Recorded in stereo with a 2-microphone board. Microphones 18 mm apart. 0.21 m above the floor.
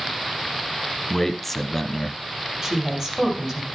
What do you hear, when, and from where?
1.1 s a man speaking: 15° left (ahead or behind), 1.2 m
2.6 s a woman speaking: 35° right (ahead or behind), 4.5 m